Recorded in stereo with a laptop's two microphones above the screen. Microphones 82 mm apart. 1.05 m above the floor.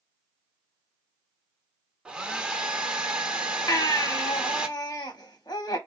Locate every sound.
2.0 s a hair dryer: 10° right (ahead or behind), 0.7 m
3.7 s a baby crying: 55° left (ahead or behind), 0.8 m